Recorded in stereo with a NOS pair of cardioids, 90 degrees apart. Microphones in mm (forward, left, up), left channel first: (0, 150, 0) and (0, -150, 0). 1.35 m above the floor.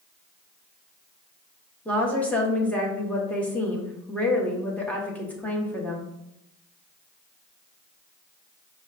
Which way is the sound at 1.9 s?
5° left.